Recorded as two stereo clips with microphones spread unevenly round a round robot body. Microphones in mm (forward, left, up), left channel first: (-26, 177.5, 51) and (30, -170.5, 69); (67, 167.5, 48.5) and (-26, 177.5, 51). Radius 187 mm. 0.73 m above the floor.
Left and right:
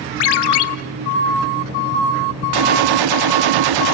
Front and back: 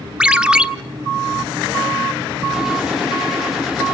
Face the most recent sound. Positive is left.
turn(degrees=-100)